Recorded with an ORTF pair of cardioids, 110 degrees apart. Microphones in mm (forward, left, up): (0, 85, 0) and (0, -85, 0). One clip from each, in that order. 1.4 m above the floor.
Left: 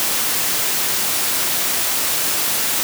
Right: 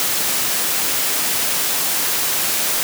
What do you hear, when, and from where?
Only background noise.